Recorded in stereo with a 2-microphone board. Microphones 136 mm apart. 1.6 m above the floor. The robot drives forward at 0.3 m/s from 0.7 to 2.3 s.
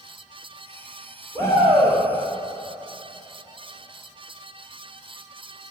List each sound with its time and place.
1.4 s a shout: 25° left (ahead or behind), 4 m